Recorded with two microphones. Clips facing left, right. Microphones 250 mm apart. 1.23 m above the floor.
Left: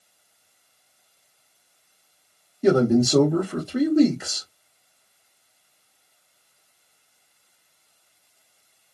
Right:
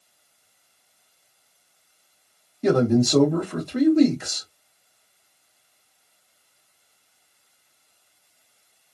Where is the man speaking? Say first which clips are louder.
Left 1 dB; 10° left (ahead or behind), 1.0 m.